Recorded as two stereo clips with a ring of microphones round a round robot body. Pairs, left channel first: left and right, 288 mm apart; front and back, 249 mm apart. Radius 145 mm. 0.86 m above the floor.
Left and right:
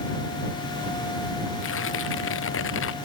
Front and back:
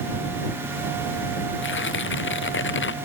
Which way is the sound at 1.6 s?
40° left.